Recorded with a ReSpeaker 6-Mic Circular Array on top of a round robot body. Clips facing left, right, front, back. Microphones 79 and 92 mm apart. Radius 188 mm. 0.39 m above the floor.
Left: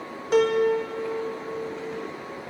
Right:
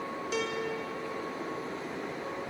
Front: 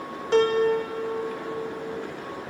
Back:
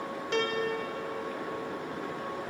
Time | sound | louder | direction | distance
0.3 | a piano | left 15 dB, front 11 dB | 55° left | ?